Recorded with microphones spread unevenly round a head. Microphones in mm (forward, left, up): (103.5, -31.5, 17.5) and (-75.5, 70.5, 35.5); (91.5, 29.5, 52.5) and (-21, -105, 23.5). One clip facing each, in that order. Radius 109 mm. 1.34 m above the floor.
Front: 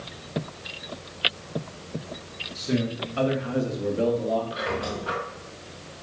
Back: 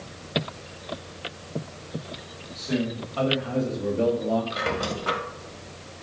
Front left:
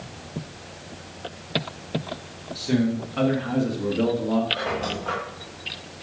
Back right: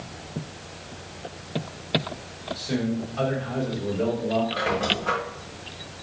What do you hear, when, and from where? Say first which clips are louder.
2.5 s a man speaking: front 1 dB, front left 4 dB; 25° left, 3 m; by 4.4 s 65° left, 2 m
4.5 s a squeak: back 1 dB, back right 2 dB; 150° left, 1.8 m